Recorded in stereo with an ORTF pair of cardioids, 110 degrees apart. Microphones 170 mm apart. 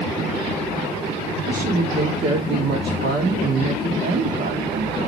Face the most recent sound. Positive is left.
turn(degrees=-55)